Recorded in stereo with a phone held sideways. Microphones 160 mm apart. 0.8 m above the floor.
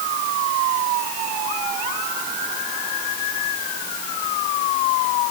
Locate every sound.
Only background noise.